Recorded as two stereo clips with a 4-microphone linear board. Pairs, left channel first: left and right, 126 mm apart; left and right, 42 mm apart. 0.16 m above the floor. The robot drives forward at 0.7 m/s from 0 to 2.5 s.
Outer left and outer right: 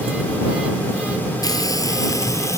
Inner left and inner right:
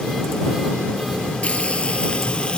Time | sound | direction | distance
1.4 | frying | 30° left (ahead or behind) | ?